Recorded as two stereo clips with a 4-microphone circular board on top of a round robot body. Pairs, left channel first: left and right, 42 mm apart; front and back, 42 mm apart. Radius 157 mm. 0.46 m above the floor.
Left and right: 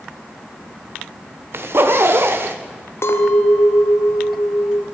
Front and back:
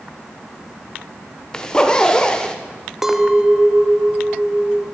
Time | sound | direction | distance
1.5 | a zipper | 70° right | 1.6 m
3.0 | a clink | 100° left | 1.5 m